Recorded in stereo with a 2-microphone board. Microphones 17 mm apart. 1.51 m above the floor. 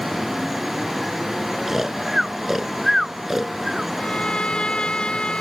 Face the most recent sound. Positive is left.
turn(degrees=65)  # may be behind; listen again after turning